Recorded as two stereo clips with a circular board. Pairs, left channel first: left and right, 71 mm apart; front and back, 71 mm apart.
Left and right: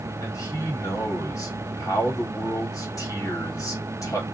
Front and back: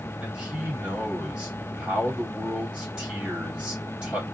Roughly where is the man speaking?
Left.